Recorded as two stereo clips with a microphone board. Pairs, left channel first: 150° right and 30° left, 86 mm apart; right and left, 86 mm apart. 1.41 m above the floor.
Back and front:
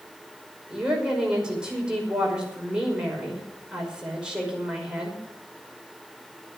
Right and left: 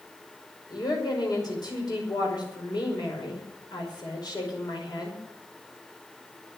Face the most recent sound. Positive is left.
turn(degrees=-50)